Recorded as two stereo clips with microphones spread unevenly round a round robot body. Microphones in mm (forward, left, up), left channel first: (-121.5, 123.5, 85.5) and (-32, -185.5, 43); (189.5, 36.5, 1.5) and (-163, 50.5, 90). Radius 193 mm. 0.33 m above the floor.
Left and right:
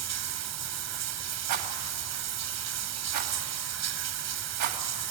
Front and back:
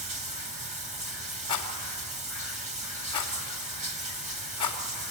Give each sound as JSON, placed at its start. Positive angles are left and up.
{"t": 0.0, "sound": "running water", "azimuth_deg": -105, "distance_m": 1.3}
{"t": 1.5, "sound": "a rattle", "azimuth_deg": -70, "distance_m": 2.5}